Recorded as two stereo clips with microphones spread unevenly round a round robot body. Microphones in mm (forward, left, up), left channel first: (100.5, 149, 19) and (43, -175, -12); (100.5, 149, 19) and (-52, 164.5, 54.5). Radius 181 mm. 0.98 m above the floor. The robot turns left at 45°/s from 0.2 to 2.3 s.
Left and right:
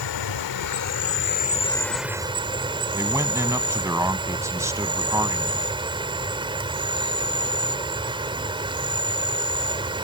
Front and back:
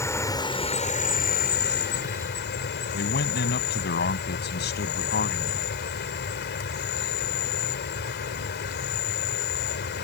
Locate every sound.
0.0 s an insect: 70° left; by 10.0 s 25° right
2.9 s a man speaking: 20° right